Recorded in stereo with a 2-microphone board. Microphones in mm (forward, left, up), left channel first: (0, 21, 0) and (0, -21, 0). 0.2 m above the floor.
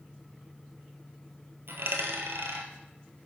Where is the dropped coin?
70° right (ahead or behind), 1.2 m.